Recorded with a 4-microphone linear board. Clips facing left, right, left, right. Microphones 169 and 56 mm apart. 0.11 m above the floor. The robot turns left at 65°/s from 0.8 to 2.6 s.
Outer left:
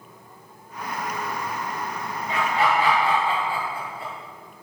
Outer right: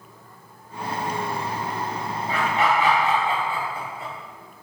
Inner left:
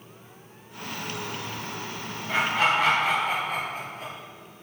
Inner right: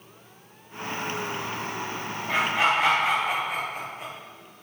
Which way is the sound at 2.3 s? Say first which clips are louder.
Even, even; 35° right (ahead or behind).